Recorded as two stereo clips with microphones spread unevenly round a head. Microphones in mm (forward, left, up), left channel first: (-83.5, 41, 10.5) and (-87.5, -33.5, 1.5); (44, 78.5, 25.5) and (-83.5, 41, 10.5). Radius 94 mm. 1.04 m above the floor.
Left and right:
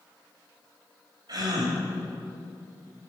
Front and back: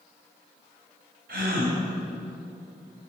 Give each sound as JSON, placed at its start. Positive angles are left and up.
{"t": 1.3, "sound": "a gasp", "azimuth_deg": -125, "distance_m": 2.5}